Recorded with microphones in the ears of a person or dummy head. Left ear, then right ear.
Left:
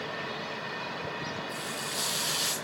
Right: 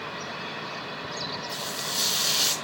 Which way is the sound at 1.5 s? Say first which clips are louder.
Right 4 dB; 10° right (ahead or behind).